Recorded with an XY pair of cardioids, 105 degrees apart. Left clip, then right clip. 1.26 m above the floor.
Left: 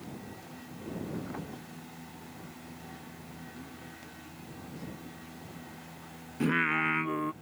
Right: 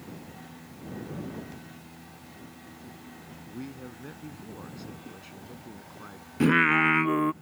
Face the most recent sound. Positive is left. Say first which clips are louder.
# right 7 dB
turn(degrees=-45)